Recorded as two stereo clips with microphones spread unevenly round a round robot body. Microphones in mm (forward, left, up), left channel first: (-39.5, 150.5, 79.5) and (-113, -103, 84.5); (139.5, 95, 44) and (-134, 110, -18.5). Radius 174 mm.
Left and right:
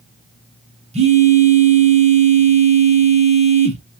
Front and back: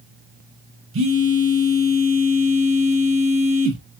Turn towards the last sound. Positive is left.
turn(degrees=-170)